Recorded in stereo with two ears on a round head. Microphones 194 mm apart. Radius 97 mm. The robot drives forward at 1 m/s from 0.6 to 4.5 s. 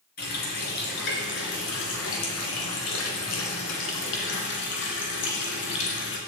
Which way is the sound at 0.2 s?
50° left (ahead or behind).